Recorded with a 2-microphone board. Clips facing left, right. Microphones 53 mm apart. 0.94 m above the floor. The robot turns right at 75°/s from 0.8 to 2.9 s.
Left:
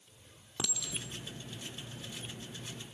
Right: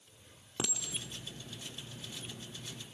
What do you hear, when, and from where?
0.6 s a clink: 30° right (ahead or behind), 1.5 m